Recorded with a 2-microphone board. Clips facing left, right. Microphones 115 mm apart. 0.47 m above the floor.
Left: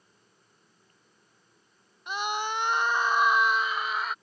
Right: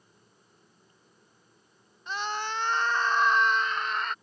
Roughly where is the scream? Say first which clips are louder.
Left 2 dB; centre.